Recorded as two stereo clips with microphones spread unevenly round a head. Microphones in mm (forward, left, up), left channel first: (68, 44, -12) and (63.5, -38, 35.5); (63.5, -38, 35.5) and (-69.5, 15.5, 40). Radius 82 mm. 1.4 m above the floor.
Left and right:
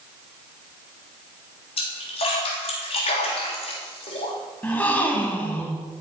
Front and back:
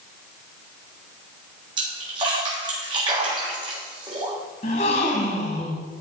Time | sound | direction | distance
1.8 | a splash | 100° left | 3 m
4.6 | a gasp | 20° right | 1.5 m